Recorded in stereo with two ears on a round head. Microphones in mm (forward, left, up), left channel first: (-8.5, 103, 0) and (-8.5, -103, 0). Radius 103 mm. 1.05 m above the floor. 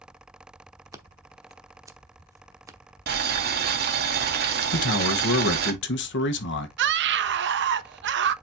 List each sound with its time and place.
0.9 s scissors: 15° right (ahead or behind), 1.0 m
3.1 s boiling: 45° right (ahead or behind), 1.5 m
4.7 s a man speaking: 55° left (ahead or behind), 1.3 m
6.8 s a scream: 50° right (ahead or behind), 0.8 m